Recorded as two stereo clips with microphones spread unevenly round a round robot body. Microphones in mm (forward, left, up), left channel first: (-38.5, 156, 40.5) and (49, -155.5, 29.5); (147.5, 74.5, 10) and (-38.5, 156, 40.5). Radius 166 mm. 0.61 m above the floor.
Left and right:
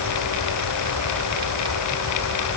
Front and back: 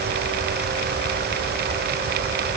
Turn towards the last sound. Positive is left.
No sound to turn to.